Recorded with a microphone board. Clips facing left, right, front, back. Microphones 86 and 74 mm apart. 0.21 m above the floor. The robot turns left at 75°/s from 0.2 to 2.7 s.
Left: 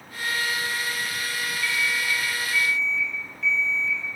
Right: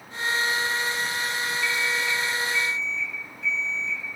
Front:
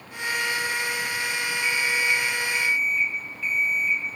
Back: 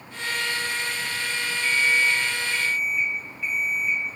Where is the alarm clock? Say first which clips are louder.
Left 1 dB, back 4 dB; 175° right, 0.9 m; by 4.0 s 105° left, 0.9 m.